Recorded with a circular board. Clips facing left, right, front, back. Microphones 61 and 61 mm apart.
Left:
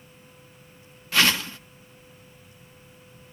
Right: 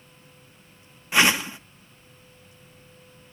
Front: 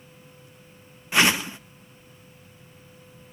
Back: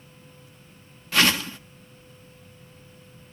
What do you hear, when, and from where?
1.1 s a whoosh: 45° right, 0.9 m